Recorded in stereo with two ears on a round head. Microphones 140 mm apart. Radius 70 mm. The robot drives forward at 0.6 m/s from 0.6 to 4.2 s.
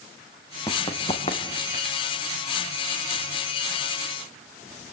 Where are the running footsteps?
25° left (ahead or behind), 4 m; by 2.0 s 45° left (ahead or behind), 4 m.